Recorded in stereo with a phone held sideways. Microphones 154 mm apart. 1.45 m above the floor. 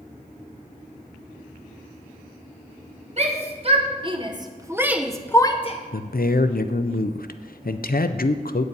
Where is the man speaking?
70° left (ahead or behind), 0.5 m.